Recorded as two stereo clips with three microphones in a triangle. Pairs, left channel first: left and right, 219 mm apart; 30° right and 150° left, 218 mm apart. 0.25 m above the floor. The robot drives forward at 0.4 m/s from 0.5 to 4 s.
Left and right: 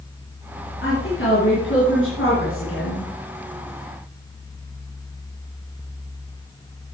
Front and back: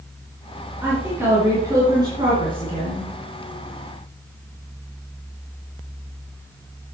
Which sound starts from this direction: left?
A woman speaking, at 0.8 s.